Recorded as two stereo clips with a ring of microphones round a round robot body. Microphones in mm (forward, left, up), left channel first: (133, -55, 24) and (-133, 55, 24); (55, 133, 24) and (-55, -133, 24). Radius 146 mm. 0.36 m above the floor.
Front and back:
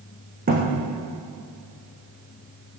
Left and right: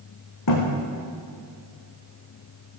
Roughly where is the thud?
Left.